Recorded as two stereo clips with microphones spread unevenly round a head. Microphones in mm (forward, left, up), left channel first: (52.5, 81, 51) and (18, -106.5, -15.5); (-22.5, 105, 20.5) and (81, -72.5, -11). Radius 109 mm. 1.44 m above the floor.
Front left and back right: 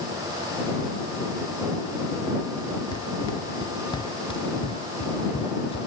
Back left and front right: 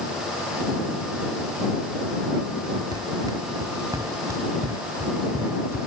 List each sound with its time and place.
2.9 s running footsteps: 15° left; by 5.9 s 20° left